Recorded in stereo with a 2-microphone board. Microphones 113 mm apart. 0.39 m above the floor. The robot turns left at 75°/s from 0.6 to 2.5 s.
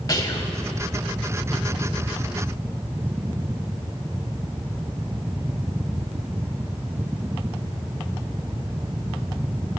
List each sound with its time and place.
0.1 s whispering: 35° left (ahead or behind), 1.6 m